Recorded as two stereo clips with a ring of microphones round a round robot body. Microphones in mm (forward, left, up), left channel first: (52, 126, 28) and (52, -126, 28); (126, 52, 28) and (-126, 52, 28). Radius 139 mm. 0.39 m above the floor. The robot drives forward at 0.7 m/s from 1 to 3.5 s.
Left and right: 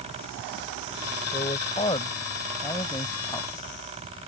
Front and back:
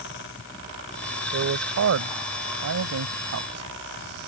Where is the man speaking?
160° left; by 3.7 s 170° left.